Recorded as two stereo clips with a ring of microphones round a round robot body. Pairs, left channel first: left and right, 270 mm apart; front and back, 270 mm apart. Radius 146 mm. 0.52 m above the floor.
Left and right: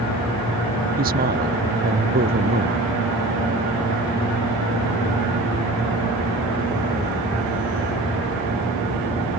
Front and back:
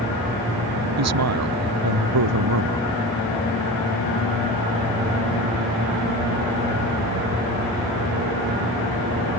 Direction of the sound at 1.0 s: 155° right.